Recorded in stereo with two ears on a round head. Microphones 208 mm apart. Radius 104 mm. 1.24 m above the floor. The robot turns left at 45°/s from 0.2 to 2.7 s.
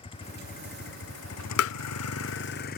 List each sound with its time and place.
0.0 s a vehicle: 155° left; by 2.8 s 45° left
1.6 s tapping: 65° left (ahead or behind); by 1.8 s 60° left (ahead or behind)